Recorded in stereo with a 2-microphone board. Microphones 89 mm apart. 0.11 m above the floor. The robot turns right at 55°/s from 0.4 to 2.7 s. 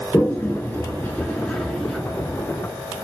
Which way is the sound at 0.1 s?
20° left (ahead or behind).